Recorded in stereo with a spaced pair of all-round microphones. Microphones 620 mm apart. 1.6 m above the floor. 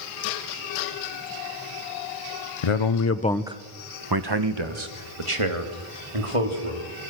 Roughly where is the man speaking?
Left.